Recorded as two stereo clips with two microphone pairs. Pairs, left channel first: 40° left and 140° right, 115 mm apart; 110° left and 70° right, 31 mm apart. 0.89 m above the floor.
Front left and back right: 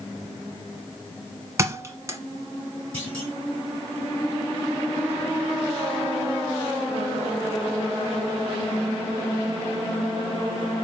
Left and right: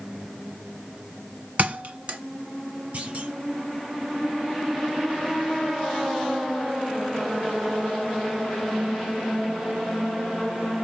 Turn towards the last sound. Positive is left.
turn(degrees=-35)